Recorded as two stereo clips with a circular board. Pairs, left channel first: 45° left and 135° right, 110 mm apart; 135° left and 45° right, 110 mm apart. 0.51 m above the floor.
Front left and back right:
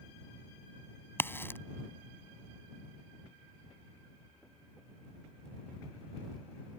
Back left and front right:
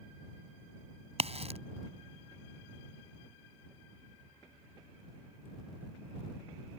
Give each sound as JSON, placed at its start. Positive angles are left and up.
{"t": 1.2, "sound": "a crack", "azimuth_deg": -25}